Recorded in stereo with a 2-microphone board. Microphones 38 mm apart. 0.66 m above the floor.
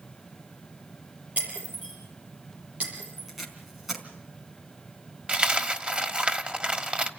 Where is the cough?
No cough in this recording.